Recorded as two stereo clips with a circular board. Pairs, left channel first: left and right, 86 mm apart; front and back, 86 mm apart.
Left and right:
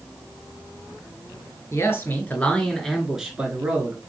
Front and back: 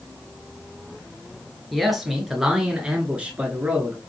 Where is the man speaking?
90° left, 1.3 m; by 4.0 s 125° right, 1.3 m.